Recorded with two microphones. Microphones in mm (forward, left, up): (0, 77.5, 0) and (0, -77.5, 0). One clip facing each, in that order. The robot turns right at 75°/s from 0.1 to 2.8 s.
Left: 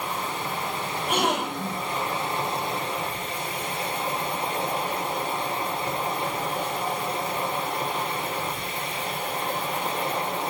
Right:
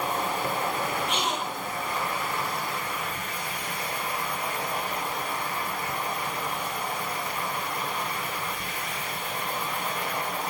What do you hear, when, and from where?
0.0 s an insect: 125° right, 4.5 m; by 10.5 s 75° left, 4.5 m
1.1 s a gasp: 50° left, 0.8 m; by 1.8 s 110° left, 0.8 m